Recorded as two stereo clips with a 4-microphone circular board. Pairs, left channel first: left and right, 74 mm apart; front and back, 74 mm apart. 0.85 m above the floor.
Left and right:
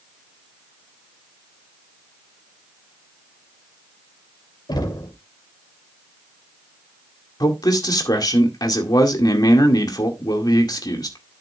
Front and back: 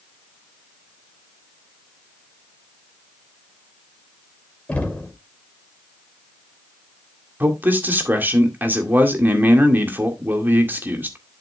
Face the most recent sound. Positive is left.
turn(degrees=115)